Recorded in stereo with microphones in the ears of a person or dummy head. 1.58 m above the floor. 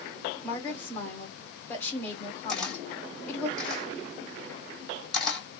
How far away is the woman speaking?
About 1.6 m.